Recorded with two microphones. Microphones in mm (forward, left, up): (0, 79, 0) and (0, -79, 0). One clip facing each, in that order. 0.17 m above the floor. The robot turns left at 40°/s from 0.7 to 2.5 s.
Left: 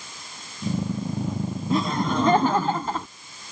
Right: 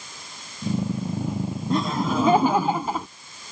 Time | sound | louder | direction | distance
1.7 | laughter | even | centre (ahead or behind) | ?